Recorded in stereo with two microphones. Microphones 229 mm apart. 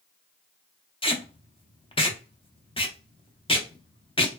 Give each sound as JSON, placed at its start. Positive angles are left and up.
{"t": 1.0, "sound": "tape being pulled", "side_deg": 25, "distance_m": 0.6}